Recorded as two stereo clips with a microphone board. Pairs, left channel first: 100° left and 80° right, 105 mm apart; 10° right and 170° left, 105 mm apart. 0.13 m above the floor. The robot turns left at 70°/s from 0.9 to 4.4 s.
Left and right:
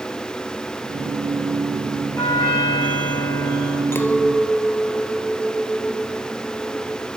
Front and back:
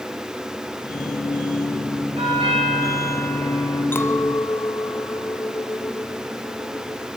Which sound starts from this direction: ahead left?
A clink, at 3.9 s.